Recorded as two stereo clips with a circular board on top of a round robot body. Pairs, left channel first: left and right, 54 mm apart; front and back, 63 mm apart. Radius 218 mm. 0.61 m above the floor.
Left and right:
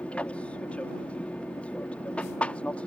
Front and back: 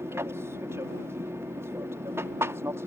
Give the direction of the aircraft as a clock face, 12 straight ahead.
7 o'clock.